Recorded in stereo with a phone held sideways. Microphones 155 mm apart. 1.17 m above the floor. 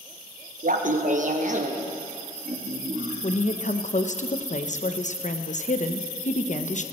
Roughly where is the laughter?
Right.